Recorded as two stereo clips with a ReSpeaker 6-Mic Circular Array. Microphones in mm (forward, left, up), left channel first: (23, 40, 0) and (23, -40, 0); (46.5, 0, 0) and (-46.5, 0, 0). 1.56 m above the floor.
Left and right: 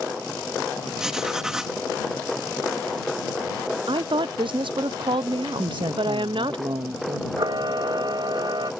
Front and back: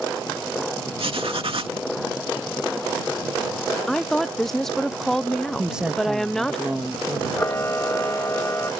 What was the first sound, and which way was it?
Writing, 170° right.